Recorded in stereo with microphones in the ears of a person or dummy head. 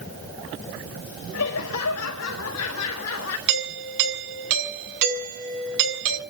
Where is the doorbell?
65° right (ahead or behind), 7 m.